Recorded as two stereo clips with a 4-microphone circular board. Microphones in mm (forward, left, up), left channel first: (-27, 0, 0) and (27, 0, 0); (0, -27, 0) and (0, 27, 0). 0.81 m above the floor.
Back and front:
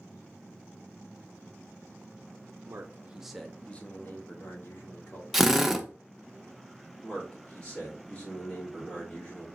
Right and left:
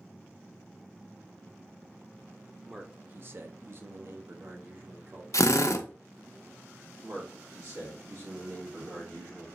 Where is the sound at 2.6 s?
15° left, 0.6 m; by 5.2 s 140° left, 1.7 m.